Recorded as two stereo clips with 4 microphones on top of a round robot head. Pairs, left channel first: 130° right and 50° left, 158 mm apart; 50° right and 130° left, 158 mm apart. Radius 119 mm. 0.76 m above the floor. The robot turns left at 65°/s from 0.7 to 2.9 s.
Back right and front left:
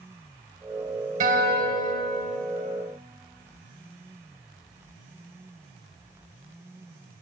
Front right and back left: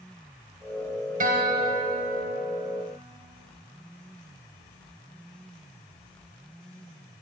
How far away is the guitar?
About 0.7 m.